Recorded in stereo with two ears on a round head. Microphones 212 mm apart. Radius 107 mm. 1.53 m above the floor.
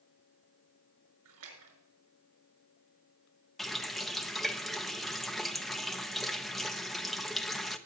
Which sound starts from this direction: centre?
A running tap, at 3.6 s.